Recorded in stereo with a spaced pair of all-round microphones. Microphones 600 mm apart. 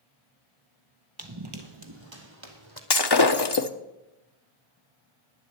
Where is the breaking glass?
40° left (ahead or behind), 0.9 m.